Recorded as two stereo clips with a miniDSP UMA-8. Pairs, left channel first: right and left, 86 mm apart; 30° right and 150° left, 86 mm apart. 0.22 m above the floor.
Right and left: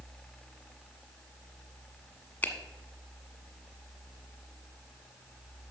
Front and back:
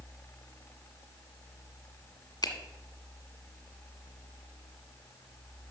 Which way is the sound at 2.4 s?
25° right.